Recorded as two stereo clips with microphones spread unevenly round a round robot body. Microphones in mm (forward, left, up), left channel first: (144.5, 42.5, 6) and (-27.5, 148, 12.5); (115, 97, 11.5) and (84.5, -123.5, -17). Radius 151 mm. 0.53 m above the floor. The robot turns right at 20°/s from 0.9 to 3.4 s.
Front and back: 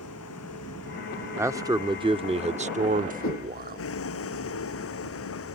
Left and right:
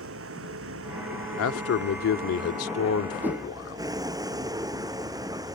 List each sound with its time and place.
0.0 s a vehicle: 75° right; by 5.5 s 25° right
1.4 s a man speaking: 70° left; by 3.9 s 110° left
3.2 s a whoosh: 15° right